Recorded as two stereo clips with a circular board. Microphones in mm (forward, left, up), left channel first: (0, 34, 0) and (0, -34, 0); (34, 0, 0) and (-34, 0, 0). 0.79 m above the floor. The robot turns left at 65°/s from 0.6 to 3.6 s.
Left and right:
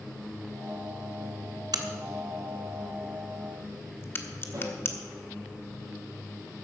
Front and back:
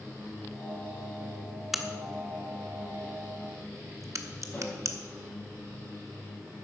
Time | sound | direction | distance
1.7 | a crack | 95° right | 1.0 m
4.5 | a snare drum | 60° right | 6 m